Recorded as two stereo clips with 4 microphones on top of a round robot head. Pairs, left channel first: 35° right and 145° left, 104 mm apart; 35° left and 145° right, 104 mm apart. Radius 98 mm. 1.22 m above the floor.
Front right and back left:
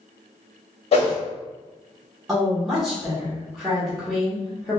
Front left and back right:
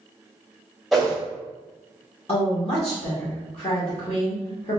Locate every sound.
0.9 s a whoosh: 60° right, 0.8 m
2.3 s a woman speaking: 55° left, 1.1 m